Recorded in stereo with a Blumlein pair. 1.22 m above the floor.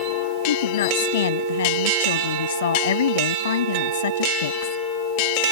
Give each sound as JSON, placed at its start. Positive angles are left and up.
{"t": 0.5, "sound": "a woman speaking", "azimuth_deg": 60}